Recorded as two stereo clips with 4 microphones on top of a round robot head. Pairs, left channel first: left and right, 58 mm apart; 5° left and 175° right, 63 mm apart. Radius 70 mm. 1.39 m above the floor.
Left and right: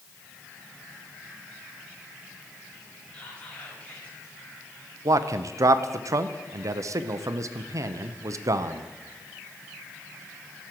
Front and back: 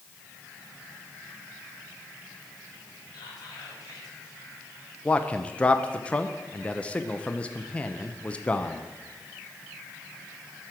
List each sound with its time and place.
3.1 s whispering: 25° left, 3 m
5.0 s a man speaking: 65° right, 0.6 m